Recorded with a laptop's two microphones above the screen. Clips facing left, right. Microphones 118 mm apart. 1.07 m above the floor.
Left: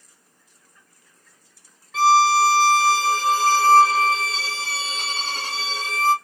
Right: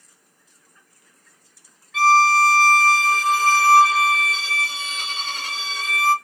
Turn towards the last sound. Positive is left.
turn(degrees=35)  # may be behind; listen again after turning